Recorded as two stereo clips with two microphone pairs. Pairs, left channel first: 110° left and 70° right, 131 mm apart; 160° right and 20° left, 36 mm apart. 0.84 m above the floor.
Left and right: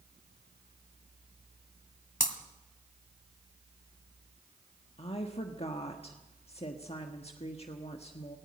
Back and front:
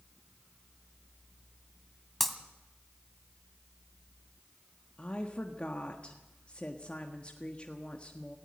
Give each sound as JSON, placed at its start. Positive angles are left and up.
{"t": 2.2, "sound": "breaking glass", "azimuth_deg": 115, "distance_m": 1.8}
{"t": 5.0, "sound": "a woman speaking", "azimuth_deg": 145, "distance_m": 1.4}